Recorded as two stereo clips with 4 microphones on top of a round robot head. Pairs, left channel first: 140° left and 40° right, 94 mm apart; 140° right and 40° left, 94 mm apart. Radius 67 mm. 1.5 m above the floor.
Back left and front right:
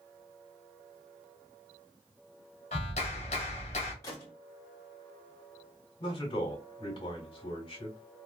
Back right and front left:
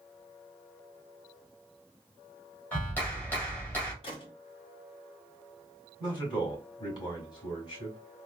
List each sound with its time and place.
2.7 s a clap: 150° left, 1.1 m
4.0 s a gunshot: 165° right, 1.6 m
6.0 s a man speaking: straight behind, 1.9 m